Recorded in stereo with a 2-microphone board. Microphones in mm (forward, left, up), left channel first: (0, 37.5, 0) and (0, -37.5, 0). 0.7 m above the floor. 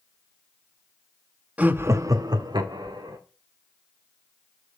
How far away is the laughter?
About 0.7 m.